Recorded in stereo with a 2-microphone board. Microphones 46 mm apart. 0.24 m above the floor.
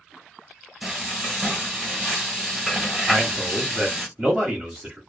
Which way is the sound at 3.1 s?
15° right (ahead or behind).